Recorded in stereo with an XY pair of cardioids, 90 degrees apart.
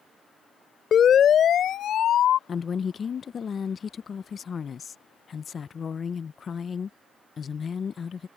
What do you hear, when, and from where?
0.9 s a siren: 60° left; by 2.4 s 75° left
2.5 s a woman speaking: 45° left